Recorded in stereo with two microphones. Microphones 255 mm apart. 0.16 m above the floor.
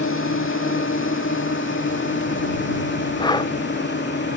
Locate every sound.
0.0 s a drone: 55° left (ahead or behind); by 4.4 s 45° left (ahead or behind)
3.2 s breathing: 15° left (ahead or behind)